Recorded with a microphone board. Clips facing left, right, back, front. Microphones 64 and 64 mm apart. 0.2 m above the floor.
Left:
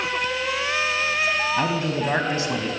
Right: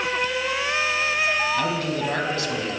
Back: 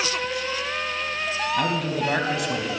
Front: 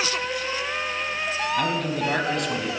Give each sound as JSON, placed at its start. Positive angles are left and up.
{"t": 1.6, "sound": "a man speaking", "azimuth_deg": 95, "distance_m": 1.0}